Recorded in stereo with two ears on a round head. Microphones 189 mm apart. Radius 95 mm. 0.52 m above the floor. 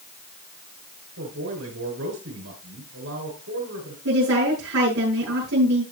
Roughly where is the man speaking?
Right.